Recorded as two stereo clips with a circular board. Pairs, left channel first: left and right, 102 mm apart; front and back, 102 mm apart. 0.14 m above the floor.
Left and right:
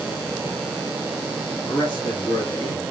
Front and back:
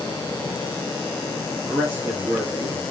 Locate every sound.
1.7 s a man speaking: 110° left, 3 m; by 2.8 s 125° left, 2.5 m